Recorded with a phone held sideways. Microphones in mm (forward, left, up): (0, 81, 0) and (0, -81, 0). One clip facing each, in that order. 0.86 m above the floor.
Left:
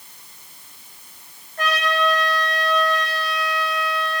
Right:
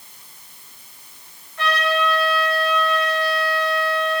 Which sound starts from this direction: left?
A trumpet, at 1.6 s.